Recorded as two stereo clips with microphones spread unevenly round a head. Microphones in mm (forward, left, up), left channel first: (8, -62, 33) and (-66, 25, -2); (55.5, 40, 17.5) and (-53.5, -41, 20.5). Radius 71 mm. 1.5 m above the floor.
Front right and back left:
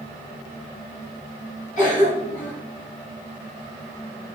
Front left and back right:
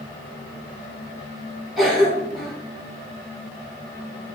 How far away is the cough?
About 4 m.